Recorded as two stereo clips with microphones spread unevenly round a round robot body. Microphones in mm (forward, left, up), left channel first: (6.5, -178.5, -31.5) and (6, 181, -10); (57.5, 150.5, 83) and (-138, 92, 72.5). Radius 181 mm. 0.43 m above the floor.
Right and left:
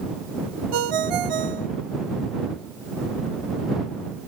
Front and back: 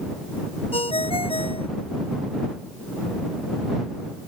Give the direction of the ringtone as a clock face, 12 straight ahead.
9 o'clock.